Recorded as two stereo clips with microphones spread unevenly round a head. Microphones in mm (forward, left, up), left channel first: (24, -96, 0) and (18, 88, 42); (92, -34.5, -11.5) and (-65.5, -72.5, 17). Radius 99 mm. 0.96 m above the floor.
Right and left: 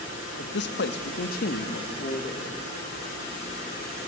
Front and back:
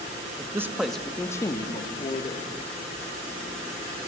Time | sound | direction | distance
0.4 | a man speaking | 95° right | 1.2 m